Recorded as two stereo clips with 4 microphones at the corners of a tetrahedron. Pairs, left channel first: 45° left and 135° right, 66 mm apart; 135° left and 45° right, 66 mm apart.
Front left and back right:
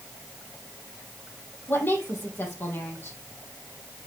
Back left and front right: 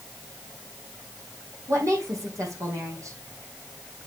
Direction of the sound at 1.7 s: 10° right.